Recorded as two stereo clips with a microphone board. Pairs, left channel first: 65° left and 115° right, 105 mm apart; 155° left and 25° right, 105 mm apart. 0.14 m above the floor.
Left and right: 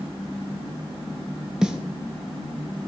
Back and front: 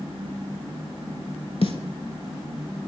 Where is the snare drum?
165° left, 0.5 m.